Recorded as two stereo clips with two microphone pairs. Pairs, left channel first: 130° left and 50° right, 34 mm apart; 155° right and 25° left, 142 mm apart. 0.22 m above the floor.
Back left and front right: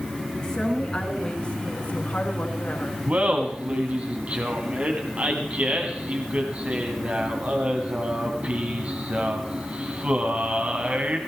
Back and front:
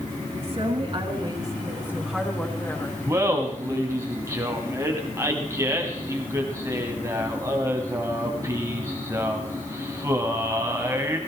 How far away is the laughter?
About 1.4 m.